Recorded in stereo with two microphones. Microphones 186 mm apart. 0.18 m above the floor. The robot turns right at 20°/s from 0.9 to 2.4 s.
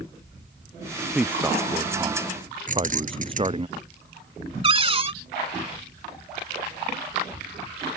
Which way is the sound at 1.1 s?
5° right (ahead or behind).